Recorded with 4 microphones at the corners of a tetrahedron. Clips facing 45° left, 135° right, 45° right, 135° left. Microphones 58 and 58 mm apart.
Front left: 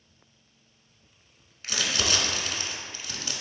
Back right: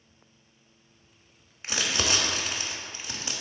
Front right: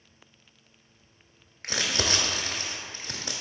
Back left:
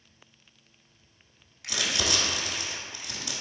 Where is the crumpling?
70° right, 0.5 m.